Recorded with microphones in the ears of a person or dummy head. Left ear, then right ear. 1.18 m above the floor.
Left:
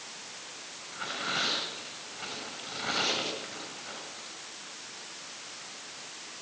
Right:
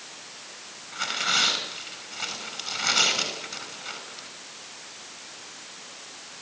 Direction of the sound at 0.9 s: 85° right.